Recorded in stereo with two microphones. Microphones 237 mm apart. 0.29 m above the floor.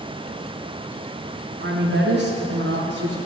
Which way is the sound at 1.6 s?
55° right (ahead or behind).